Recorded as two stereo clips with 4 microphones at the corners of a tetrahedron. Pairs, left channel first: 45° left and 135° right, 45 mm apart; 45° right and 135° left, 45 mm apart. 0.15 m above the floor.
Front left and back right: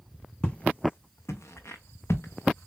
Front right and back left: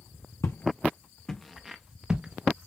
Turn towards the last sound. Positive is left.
turn(degrees=75)